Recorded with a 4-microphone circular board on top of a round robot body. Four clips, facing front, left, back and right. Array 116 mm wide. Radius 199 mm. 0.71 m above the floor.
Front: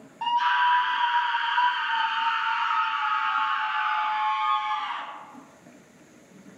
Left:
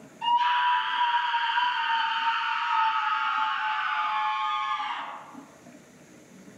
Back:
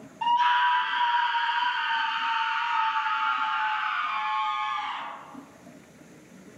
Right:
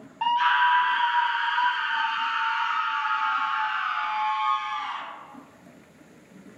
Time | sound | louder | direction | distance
0.2 | a scream | right 2 dB, even | 75° right | 1.6 m